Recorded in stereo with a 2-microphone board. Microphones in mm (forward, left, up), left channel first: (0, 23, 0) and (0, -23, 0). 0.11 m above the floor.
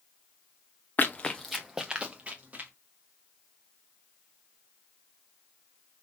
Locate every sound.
1.0 s running footsteps: 40° left (ahead or behind), 0.7 m; by 2.7 s 35° right (ahead or behind), 1.6 m